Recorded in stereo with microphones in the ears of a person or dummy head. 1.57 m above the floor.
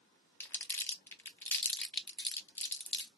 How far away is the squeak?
No squeak in this recording.